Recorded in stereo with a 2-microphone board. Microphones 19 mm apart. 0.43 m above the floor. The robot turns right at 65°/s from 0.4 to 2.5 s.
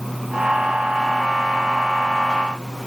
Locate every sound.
Only background noise.